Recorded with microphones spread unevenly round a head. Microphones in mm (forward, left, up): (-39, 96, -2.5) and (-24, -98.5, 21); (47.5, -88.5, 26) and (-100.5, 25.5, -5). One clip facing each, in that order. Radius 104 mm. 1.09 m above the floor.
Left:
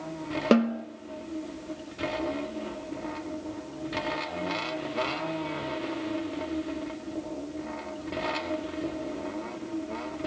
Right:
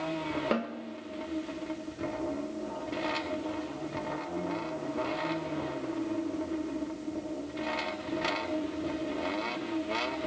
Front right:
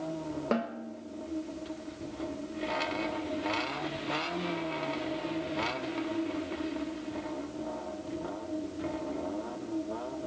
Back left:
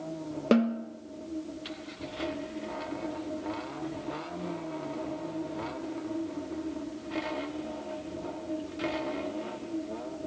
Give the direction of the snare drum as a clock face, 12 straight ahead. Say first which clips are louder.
Left 14 dB, back left 9 dB; 9 o'clock.